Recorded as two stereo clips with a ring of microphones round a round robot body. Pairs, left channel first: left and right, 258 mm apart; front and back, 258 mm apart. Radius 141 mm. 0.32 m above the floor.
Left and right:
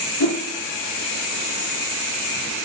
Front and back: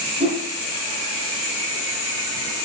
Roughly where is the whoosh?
Left.